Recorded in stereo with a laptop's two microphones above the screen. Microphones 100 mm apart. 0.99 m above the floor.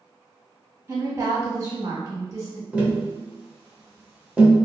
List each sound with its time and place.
0.9 s a woman speaking: 30° right (ahead or behind), 1.7 m
2.7 s tapping: 15° right (ahead or behind), 0.8 m